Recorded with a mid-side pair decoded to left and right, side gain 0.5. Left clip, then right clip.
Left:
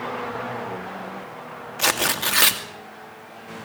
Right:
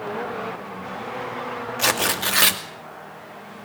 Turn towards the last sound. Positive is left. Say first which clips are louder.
# even
turn(degrees=5)